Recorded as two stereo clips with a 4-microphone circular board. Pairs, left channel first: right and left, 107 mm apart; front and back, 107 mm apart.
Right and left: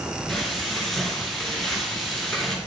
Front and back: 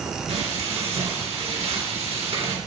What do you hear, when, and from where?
0.3 s frying: 175° right, 3 m